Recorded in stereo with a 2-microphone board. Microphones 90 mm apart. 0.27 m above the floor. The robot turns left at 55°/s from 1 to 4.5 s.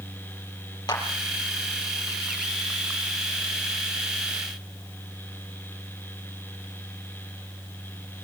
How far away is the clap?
About 6 m.